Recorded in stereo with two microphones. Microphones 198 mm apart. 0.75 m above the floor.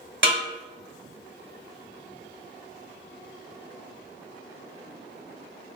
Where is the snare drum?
65° right (ahead or behind), 1.2 m.